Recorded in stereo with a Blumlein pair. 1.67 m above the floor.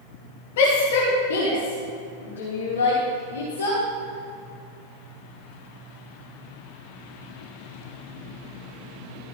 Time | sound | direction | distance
0.6 | a shout | 55° left | 2.5 m